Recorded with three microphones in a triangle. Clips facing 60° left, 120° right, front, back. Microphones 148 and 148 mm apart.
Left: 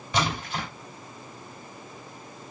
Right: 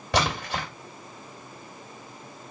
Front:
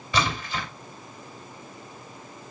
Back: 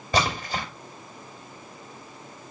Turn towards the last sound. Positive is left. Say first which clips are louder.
# right 2 dB, back 2 dB
turn(degrees=-135)